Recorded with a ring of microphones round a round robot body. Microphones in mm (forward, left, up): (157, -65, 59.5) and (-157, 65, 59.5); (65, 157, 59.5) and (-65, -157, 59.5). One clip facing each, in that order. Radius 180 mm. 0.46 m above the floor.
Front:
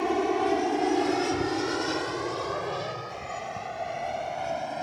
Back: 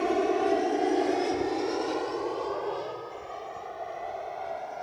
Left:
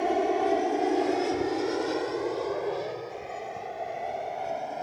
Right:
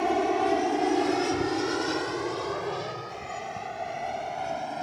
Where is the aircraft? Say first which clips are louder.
Even, even; 90° right; by 4.8 s 55° right.